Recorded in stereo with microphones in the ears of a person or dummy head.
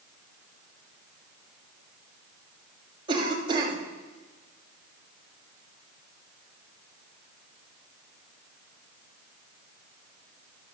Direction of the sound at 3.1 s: 35° right (ahead or behind).